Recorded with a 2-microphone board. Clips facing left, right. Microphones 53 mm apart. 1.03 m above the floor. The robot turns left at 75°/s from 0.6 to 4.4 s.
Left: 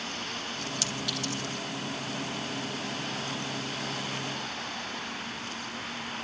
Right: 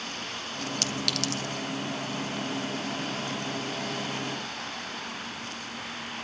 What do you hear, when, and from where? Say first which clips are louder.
0.8 s a clink: right 4 dB; 55° right (ahead or behind), 1.5 m; by 1.4 s 80° right, 1.5 m